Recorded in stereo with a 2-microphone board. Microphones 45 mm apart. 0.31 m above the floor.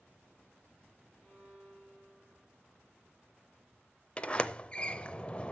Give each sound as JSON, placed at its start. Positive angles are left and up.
{"t": 1.2, "sound": "a violin", "side_deg": 15, "distance_m": 4.5}
{"t": 4.2, "sound": "a sliding door", "side_deg": 25, "distance_m": 0.5}